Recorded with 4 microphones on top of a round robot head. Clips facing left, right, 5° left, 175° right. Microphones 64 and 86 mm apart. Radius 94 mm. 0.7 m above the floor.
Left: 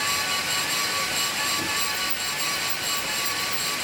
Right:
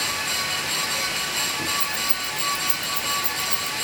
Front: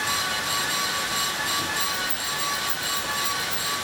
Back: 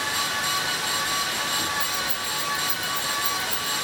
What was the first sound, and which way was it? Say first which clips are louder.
Keys jangling: right 1 dB, even; 90° right.